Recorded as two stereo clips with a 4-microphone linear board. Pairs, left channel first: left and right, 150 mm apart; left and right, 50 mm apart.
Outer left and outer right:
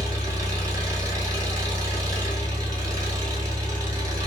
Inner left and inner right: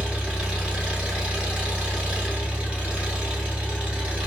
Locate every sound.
0.0 s an engine running: 25° right (ahead or behind), 1.1 m